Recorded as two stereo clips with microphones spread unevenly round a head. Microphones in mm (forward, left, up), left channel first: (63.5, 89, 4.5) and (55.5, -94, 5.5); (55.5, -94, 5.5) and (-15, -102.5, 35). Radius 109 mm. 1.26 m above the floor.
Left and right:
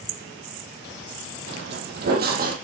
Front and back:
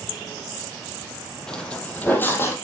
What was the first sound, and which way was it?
Footsteps, 85° right.